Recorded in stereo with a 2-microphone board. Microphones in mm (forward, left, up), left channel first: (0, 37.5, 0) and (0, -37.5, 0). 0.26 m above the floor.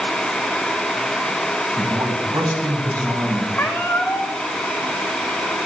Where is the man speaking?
55° right (ahead or behind), 1.7 m.